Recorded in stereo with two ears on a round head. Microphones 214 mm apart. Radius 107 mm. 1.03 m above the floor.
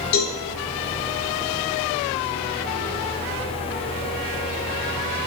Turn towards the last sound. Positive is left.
turn(degrees=80)